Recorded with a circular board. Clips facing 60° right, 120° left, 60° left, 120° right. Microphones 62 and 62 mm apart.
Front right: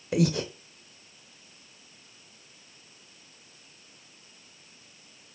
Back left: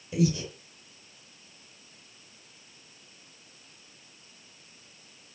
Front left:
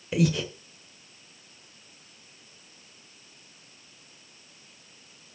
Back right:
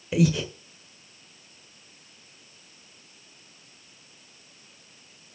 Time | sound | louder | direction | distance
0.1 | breathing | front right 1 dB, back right 2 dB | 35° right | 1.0 m